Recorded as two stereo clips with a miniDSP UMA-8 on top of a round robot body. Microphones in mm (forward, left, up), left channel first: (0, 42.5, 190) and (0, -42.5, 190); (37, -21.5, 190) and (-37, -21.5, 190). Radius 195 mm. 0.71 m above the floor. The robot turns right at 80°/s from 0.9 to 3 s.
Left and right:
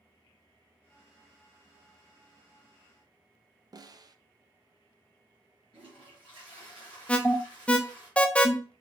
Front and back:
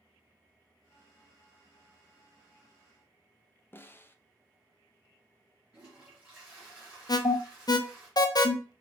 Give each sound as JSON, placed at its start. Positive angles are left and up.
{"t": 3.7, "sound": "a snare drum", "azimuth_deg": -55, "distance_m": 0.5}
{"t": 5.7, "sound": "a toilet flushing", "azimuth_deg": -105, "distance_m": 2.0}
{"t": 7.1, "sound": "an alarm", "azimuth_deg": 15, "distance_m": 0.5}